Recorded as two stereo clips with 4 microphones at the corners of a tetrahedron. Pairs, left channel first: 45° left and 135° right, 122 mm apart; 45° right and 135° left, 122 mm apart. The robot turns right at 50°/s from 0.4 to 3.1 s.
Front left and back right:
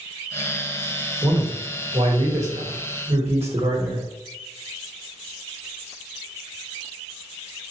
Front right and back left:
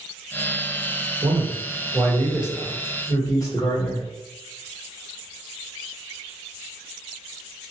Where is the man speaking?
155° left, 1.3 m; by 4.0 s 110° right, 1.3 m.